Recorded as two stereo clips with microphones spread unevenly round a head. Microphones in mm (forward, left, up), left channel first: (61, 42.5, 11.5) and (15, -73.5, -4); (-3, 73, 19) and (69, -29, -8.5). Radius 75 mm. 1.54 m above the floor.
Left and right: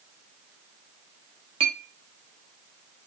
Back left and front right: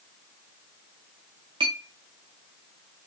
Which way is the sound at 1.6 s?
110° right.